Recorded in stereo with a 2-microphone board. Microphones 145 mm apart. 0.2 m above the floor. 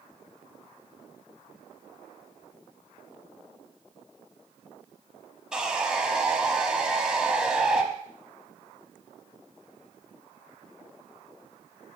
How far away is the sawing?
About 1.1 m.